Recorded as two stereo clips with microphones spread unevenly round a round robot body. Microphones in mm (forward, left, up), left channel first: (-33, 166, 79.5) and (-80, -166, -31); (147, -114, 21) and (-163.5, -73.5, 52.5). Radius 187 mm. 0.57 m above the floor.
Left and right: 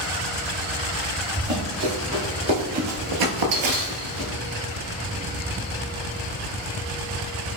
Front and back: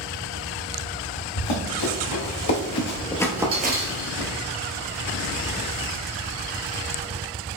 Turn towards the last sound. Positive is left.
turn(degrees=-160)